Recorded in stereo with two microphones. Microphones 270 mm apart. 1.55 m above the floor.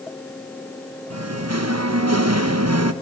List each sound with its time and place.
1.1 s singing: 60° right (ahead or behind), 1.1 m